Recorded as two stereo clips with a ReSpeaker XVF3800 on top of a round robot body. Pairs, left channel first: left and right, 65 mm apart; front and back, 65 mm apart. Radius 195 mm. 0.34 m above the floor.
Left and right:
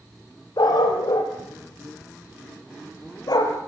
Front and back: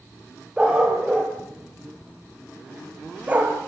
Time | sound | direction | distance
0.6 | a dog barking | 100° left | 5 m